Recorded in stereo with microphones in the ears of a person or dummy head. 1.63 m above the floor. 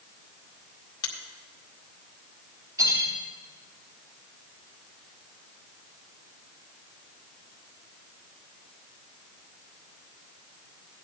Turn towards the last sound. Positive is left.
turn(degrees=-15)  # may be behind; listen again after turning